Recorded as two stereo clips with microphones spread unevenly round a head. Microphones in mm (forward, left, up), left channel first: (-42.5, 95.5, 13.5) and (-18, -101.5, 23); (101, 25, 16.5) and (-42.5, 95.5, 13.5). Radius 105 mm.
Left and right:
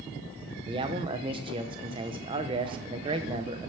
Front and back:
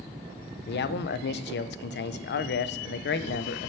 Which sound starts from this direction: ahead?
A man speaking, at 0.7 s.